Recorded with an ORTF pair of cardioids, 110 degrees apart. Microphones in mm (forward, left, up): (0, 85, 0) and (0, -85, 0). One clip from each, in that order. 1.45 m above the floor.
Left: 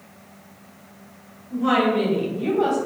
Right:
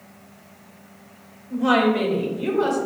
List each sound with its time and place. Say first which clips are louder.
1.5 s a woman speaking: right 1 dB; 45° right, 1.9 m; by 2.9 s 65° right, 2 m